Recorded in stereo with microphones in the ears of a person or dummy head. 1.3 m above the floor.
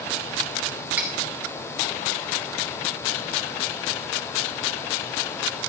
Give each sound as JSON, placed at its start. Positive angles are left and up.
{"t": 1.0, "sound": "cutlery clinking", "side_deg": -10, "distance_m": 2.5}